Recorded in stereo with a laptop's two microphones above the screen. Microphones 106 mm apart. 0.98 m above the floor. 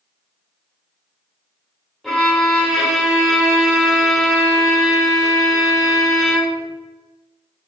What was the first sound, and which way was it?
A violin, centre (ahead or behind).